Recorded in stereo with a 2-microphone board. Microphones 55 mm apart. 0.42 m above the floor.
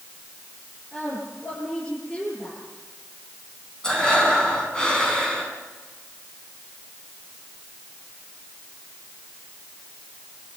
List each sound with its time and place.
0.9 s a woman speaking: 20° left (ahead or behind), 9 m
3.8 s breathing: 15° left (ahead or behind), 4.5 m